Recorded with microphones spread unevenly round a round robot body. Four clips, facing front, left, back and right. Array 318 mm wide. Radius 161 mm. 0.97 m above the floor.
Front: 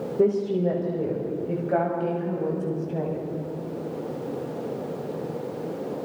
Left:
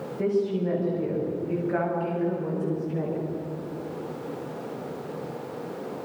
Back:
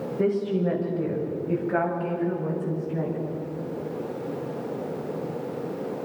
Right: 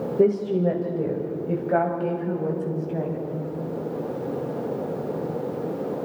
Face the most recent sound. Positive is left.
turn(degrees=-50)